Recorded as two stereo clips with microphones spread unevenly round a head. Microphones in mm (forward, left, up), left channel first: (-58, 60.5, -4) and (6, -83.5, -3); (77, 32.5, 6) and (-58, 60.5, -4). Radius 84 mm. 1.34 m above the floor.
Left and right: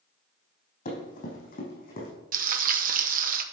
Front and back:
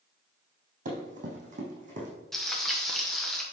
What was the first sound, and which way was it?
Running footsteps, 140° left.